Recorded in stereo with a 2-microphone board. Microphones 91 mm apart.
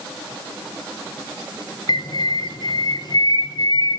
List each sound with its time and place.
1.9 s a bird: 50° left (ahead or behind), 0.9 m